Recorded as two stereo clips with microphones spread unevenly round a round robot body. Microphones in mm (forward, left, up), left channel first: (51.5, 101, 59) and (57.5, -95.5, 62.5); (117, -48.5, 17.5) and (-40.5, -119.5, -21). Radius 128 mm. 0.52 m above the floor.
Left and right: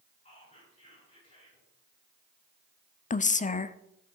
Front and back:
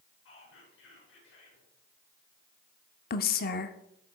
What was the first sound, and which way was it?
Whispering, 30° left.